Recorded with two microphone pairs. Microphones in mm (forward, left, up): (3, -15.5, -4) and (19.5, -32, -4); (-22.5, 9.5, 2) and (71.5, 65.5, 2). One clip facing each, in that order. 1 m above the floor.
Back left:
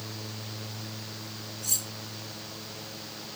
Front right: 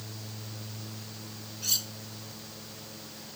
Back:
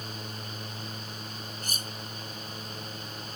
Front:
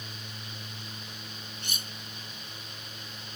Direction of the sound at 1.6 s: 100° right.